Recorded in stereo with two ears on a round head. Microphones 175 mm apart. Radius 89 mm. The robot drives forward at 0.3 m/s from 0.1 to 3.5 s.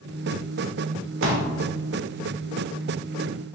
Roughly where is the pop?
Right.